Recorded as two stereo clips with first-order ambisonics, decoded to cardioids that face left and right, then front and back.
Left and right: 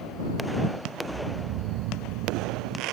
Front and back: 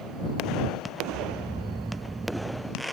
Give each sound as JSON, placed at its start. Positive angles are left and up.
{"t": 1.1, "sound": "snoring", "azimuth_deg": -100}